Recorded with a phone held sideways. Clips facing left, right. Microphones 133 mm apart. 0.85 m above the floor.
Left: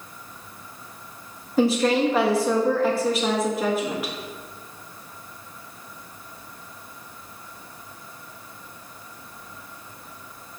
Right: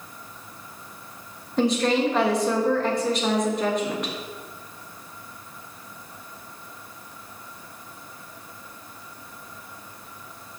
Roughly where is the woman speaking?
Centre.